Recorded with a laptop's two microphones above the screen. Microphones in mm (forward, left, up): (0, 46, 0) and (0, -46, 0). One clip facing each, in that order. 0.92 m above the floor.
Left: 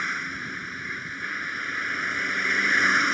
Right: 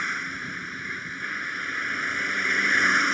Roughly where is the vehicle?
Centre.